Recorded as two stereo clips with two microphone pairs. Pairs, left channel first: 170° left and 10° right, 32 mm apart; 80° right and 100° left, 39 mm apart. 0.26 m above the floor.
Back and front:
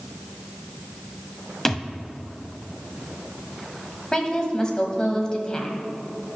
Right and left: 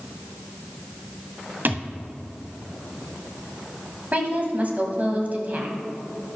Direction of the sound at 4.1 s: 120° left.